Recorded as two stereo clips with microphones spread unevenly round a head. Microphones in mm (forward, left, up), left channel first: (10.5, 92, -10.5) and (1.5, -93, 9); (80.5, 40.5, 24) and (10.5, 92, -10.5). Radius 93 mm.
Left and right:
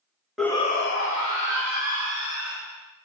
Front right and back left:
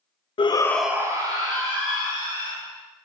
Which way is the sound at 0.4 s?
Straight ahead.